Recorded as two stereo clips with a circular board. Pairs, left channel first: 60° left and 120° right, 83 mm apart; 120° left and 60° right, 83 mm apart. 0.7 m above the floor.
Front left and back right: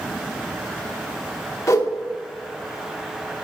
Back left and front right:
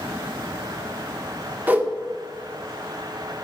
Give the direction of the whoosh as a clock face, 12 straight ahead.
12 o'clock.